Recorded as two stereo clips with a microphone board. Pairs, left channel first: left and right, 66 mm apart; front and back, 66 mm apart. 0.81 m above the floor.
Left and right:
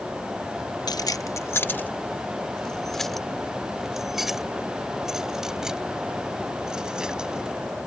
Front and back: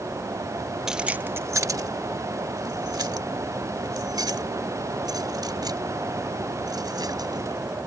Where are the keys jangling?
100° left; by 7.9 s 170° right.